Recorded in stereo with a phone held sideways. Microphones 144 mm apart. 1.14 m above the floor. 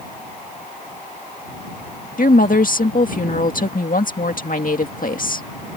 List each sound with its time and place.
2.2 s a woman speaking: 70° left (ahead or behind)